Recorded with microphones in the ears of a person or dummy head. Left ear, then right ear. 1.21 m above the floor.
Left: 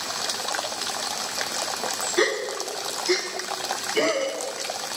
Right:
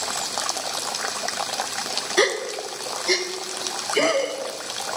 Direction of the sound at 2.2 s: 20° right (ahead or behind).